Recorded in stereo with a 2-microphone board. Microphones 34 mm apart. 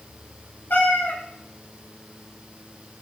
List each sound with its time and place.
0.7 s a cat meowing: 65° left (ahead or behind), 3 m